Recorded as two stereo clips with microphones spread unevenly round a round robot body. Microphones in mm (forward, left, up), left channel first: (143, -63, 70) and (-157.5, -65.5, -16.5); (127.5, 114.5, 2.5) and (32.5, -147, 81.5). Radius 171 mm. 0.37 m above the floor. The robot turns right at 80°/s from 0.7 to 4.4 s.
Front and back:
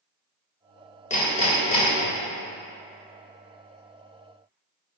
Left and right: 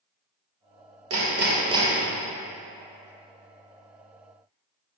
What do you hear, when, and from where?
1.1 s hammering: 75° right, 1.5 m; by 2.1 s 5° left, 1.5 m